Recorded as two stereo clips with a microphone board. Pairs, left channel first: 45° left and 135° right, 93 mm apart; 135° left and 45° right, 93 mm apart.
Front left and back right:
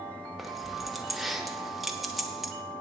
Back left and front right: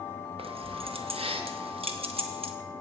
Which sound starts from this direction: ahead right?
Keys jangling, at 0.4 s.